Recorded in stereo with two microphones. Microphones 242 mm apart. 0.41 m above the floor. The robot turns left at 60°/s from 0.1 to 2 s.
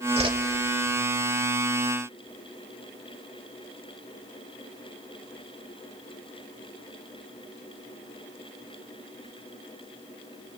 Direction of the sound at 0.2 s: 25° right (ahead or behind).